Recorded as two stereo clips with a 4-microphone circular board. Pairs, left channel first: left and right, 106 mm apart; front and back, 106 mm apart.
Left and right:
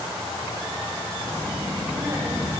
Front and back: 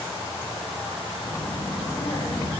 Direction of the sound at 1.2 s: 25° right.